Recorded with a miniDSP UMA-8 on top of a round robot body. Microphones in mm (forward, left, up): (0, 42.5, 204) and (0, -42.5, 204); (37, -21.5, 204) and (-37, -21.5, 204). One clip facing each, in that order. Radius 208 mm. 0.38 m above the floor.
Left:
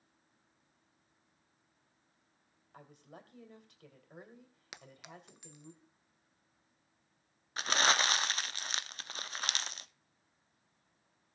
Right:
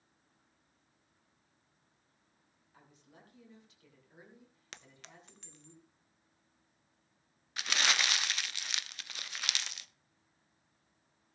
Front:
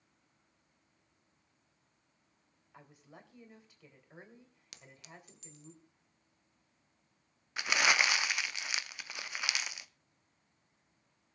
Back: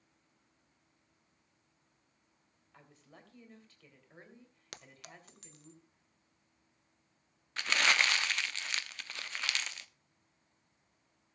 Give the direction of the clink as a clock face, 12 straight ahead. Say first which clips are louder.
Left 4 dB, back 2 dB; 6 o'clock.